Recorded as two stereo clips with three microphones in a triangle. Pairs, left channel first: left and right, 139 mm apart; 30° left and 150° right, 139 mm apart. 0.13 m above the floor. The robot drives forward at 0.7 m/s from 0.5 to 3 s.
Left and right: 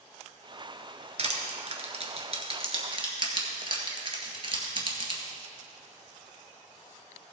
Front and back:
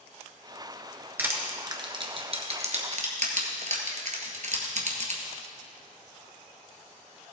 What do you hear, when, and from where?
1.2 s crushing: 80° right, 1.4 m; by 5.2 s 135° right, 1.7 m